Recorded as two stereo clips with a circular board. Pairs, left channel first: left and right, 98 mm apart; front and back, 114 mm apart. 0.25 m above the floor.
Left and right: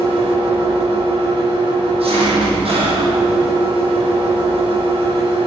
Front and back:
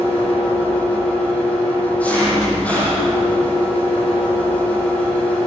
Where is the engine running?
75° right, 9.5 m.